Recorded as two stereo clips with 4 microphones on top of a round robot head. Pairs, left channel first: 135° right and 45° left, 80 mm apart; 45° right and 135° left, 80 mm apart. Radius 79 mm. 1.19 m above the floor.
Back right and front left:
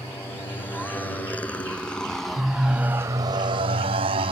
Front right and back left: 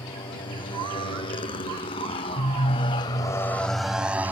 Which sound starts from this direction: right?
A motorcycle, at 0.0 s.